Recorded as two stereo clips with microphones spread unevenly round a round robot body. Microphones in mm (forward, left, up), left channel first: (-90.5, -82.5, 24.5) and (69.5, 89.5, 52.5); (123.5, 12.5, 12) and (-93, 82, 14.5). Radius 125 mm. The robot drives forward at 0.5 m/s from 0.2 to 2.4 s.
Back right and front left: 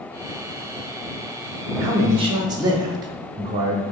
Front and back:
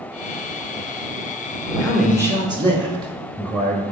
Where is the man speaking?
65° left, 0.8 m; by 3.8 s 115° left, 0.8 m.